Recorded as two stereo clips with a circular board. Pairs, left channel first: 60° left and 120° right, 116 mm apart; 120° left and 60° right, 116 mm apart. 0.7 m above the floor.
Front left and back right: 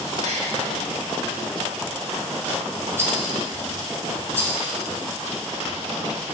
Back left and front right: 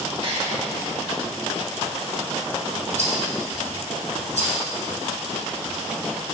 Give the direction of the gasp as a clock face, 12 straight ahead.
3 o'clock.